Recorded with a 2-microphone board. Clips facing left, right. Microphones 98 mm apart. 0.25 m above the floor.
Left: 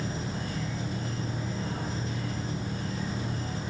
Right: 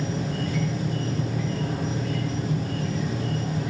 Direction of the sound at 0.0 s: 75° right (ahead or behind).